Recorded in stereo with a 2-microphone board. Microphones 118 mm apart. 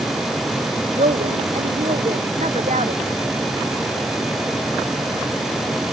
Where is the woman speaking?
85° right.